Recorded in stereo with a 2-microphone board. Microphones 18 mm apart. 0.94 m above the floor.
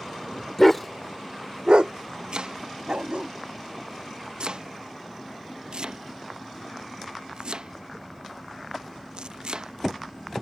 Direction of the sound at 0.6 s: 25° left (ahead or behind).